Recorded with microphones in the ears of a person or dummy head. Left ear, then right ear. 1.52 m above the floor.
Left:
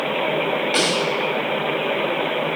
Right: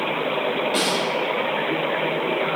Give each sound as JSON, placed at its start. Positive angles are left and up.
{"t": 0.7, "sound": "a snare drum", "side_deg": 10, "distance_m": 1.6}